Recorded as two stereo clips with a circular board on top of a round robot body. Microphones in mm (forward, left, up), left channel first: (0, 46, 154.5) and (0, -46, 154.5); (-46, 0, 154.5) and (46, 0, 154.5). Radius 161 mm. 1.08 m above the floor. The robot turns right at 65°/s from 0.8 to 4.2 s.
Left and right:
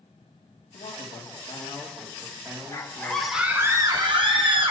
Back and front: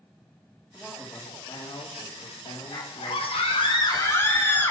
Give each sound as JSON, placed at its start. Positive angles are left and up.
{"t": 0.7, "sound": "a man speaking", "azimuth_deg": 85, "distance_m": 3.0}
{"t": 2.7, "sound": "a scream", "azimuth_deg": 145, "distance_m": 2.5}